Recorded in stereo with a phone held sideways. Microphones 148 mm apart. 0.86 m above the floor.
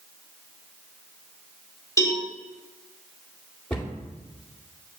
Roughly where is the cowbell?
Left.